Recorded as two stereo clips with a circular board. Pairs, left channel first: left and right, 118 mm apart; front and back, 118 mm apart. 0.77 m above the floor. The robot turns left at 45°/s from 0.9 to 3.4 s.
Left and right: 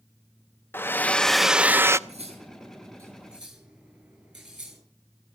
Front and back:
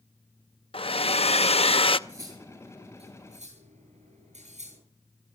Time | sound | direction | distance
0.7 | a hair dryer | 20° left | 0.6 m
2.1 | cutlery clinking | 115° right | 7.5 m